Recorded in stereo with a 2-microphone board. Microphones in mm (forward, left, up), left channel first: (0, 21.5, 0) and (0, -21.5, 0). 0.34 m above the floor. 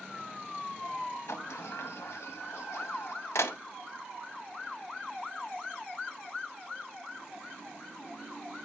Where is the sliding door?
75° left (ahead or behind), 0.6 m.